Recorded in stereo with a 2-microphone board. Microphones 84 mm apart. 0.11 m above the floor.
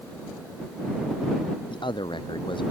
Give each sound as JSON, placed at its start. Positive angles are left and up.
{"t": 1.7, "sound": "a man speaking", "side_deg": 75}